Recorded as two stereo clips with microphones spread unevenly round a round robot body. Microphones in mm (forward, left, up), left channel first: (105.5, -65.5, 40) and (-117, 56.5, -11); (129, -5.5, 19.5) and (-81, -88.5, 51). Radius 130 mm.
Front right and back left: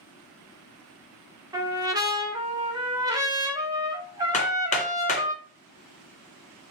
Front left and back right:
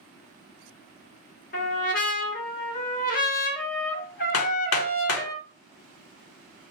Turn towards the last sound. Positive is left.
turn(degrees=20)